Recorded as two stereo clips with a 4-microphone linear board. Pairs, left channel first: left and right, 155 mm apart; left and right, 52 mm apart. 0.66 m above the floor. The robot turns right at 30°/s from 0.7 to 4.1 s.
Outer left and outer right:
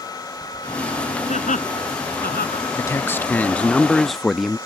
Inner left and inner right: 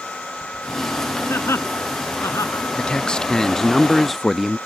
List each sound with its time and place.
1.3 s laughter: 50° left (ahead or behind); by 2.6 s 85° left
2.8 s a man speaking: 20° left (ahead or behind); by 4.6 s centre (ahead or behind)